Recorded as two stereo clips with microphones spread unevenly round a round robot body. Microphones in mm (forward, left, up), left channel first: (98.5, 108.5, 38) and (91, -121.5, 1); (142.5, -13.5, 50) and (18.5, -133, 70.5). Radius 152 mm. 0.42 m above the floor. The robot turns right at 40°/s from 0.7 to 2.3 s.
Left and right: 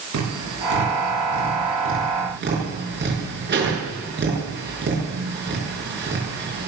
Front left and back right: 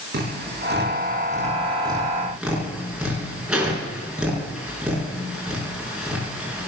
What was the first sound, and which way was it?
Tapping, 115° right.